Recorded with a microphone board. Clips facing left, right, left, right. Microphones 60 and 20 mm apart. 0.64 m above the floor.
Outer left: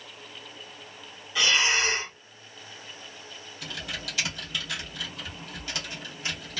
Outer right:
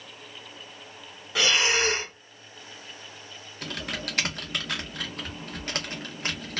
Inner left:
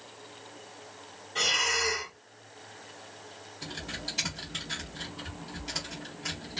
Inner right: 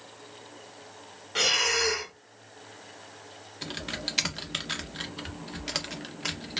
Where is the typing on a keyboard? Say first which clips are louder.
Outer right 3 dB, inner right 3 dB; 50° right (ahead or behind), 0.9 m.